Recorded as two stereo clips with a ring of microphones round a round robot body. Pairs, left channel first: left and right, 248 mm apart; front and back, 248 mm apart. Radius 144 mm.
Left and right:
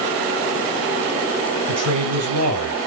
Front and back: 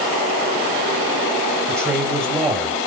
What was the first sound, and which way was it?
A man speaking, 90° right.